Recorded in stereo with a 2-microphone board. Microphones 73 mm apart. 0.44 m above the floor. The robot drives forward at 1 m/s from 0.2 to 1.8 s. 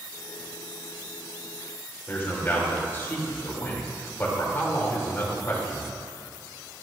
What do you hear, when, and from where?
2.1 s a man speaking: 30° left (ahead or behind), 1.7 m